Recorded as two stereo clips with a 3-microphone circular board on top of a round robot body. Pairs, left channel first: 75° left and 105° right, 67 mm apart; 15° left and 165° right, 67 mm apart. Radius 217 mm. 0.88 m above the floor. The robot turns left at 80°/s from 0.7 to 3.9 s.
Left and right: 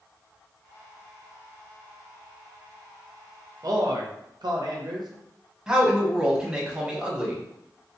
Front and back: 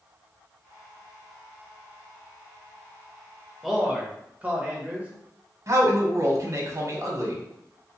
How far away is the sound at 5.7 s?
About 1.1 m.